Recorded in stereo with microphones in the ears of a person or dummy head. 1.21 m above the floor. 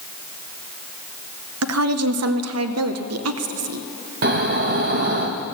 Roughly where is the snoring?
Right.